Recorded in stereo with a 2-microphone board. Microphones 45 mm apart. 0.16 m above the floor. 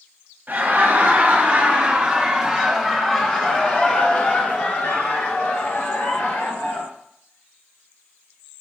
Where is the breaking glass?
No breaking glass in this recording.